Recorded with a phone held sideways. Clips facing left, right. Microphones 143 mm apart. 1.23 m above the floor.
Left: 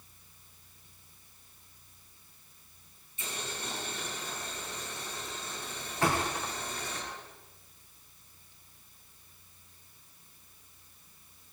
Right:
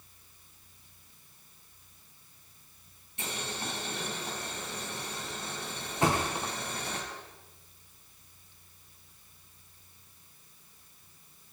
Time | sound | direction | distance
3.2 | boiling | 75° right (ahead or behind) | 6 m
6.0 | a thud | 20° right (ahead or behind) | 4 m